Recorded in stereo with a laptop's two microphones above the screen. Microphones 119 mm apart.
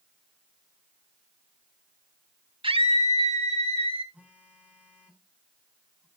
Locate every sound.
2.6 s a scream: 50° right (ahead or behind), 1.4 m; by 4.0 s 55° right (ahead or behind), 2.5 m
4.1 s a phone buzzing: 10° right (ahead or behind), 4.5 m